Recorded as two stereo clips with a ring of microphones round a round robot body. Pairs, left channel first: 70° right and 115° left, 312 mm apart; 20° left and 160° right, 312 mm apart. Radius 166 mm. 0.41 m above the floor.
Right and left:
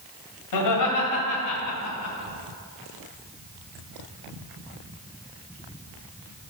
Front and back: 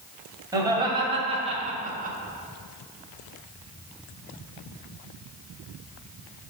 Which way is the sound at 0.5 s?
80° right.